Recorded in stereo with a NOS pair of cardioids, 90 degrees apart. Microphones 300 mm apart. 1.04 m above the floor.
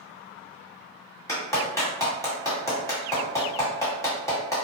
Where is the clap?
10° left, 1.4 m.